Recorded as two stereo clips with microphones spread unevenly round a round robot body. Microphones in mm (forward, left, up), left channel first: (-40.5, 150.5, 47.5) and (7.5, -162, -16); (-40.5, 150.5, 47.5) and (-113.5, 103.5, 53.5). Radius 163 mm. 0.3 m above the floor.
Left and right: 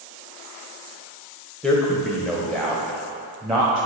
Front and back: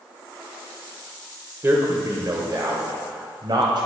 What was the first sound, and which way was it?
A man speaking, 150° right.